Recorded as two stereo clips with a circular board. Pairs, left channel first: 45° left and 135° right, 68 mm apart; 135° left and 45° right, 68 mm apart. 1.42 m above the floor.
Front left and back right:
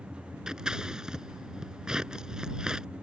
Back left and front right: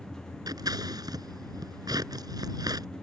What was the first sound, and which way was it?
Scissors, 60° right.